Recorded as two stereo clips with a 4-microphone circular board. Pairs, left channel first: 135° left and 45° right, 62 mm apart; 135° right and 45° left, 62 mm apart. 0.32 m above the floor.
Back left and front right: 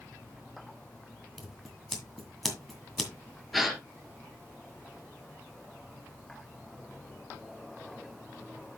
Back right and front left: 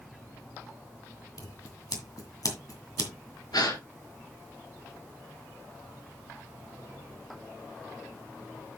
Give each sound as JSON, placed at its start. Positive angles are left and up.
{"t": 1.4, "sound": "scissors", "azimuth_deg": -140, "distance_m": 1.8}
{"t": 3.5, "sound": "a gasp", "azimuth_deg": -135, "distance_m": 2.0}